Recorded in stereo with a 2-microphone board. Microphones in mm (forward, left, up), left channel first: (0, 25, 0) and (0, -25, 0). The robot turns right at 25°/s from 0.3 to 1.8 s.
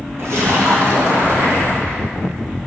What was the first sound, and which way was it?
A splash, 115° right.